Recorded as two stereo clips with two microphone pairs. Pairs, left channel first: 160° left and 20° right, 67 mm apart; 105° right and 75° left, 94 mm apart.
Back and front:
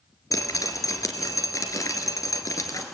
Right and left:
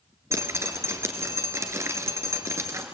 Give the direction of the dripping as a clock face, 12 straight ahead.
8 o'clock.